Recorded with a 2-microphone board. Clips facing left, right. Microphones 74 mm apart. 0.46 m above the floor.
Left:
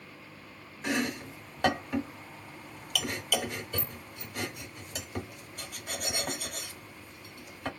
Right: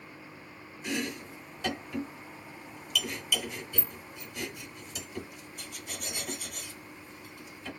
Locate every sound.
0.8 s chopping: 60° left (ahead or behind), 1.1 m